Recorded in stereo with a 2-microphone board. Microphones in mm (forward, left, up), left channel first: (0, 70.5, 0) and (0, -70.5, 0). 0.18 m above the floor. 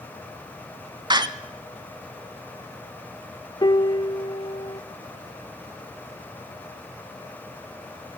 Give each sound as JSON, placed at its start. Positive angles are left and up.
{"t": 1.1, "sound": "a door slam", "side_deg": -35, "distance_m": 0.9}
{"t": 3.6, "sound": "a piano", "side_deg": 35, "distance_m": 0.6}